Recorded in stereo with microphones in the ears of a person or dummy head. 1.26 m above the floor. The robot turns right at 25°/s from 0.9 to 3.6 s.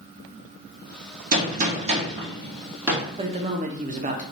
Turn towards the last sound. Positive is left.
turn(degrees=-35)  # may be behind; listen again after turning